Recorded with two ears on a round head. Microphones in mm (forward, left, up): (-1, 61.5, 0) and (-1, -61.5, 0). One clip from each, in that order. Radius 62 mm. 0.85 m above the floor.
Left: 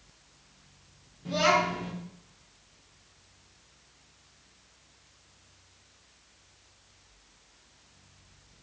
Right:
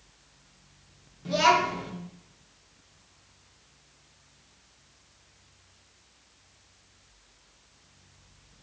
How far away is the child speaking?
About 0.9 m.